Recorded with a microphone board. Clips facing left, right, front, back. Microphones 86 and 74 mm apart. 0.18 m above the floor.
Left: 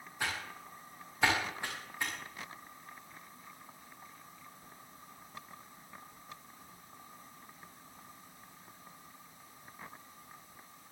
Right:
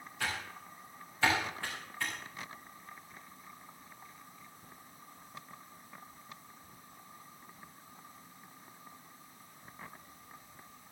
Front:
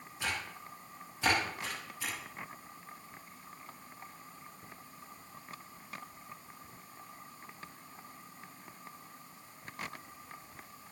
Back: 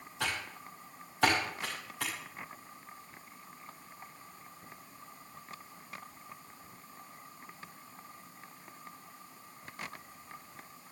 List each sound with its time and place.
0.2 s typing on a keyboard: 160° left, 8 m